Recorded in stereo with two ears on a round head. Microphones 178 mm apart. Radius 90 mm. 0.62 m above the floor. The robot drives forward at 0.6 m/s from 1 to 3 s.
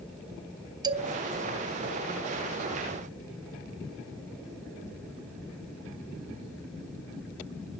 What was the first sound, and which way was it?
A man speaking, 20° right (ahead or behind).